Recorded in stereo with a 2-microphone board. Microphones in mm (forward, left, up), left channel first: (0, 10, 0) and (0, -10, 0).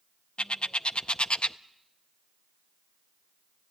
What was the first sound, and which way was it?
A bird, 65° left (ahead or behind).